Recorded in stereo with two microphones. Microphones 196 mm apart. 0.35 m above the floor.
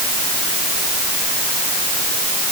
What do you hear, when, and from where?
Only background noise.